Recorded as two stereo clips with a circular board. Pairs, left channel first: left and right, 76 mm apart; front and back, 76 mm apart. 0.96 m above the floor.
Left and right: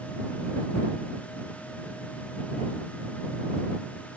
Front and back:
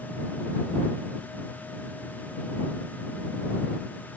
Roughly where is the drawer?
I don't hear a drawer.